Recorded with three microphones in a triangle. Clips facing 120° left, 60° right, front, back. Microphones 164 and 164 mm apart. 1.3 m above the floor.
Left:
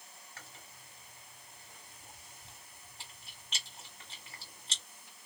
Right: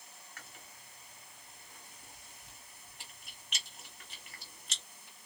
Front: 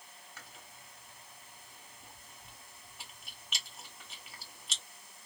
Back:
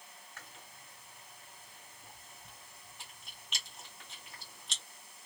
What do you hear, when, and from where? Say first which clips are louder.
0.4 s chewing: left 1 dB, even; 85° left, 1.3 m